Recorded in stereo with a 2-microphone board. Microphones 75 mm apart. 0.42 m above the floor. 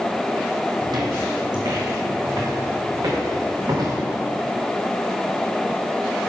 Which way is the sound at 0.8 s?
65° right (ahead or behind).